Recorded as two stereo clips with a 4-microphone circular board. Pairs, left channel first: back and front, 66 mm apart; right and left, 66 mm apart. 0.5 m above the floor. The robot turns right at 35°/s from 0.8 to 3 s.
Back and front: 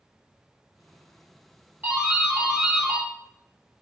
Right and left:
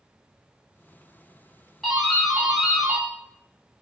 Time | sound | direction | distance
1.8 | a doorbell | 10° right | 1.9 m